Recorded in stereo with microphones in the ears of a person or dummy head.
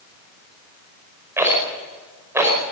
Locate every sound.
1.4 s a rattle: 15° right (ahead or behind), 5 m